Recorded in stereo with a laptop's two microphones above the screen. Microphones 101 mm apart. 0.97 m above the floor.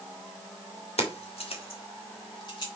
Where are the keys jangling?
85° left, 1.9 m; by 2.7 s 45° left (ahead or behind), 2 m.